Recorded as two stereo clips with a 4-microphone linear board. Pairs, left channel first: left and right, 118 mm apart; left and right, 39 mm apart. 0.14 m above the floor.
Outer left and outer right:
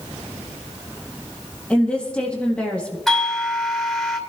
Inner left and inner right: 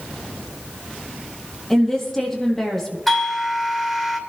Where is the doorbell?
Centre (ahead or behind), 3 m.